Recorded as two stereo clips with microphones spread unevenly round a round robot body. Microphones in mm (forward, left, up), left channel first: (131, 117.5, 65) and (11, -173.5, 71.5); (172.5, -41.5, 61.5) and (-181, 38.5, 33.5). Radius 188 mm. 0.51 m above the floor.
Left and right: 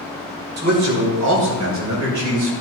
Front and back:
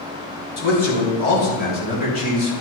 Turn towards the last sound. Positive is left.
turn(degrees=-85)